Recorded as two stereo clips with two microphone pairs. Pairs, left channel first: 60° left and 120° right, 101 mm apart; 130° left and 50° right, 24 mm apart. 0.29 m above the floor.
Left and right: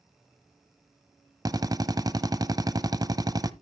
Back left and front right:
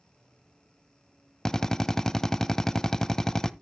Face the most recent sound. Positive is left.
turn(degrees=-165)